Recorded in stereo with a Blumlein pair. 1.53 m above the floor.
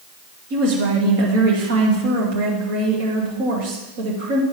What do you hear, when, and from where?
0.5 s a woman speaking: 50° right, 2.5 m